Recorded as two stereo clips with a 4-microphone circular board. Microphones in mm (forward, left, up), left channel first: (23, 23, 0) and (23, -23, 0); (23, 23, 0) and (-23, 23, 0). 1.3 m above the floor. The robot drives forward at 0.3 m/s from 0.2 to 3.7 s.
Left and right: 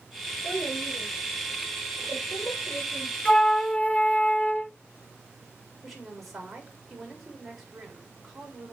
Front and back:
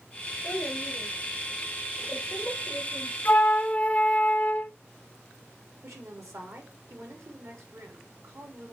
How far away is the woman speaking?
About 3.5 m.